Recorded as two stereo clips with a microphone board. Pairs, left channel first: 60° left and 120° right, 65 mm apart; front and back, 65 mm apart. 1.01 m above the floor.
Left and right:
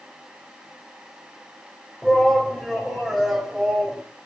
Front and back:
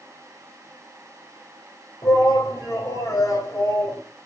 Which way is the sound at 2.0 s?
20° right.